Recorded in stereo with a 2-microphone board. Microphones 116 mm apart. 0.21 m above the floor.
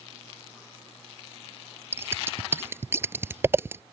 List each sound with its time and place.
1.9 s scissors: 20° right (ahead or behind)